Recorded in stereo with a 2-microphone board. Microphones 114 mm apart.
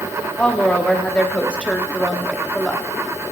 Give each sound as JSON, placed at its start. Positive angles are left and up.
{"t": 0.4, "sound": "a woman speaking", "side_deg": 10, "distance_m": 1.1}